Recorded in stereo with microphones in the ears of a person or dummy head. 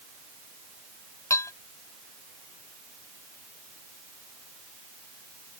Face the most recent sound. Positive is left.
turn(degrees=15)  # may be behind; listen again after turning